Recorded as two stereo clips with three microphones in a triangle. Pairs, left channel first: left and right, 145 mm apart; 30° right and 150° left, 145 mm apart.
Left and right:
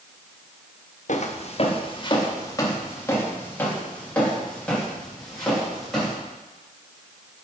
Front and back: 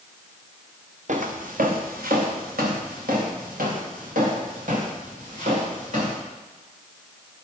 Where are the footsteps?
120° left, 1.3 m; by 6.2 s 175° left, 5.5 m.